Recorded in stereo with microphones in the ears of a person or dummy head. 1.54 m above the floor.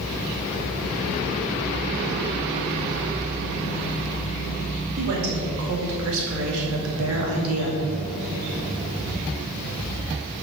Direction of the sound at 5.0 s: 55° right (ahead or behind).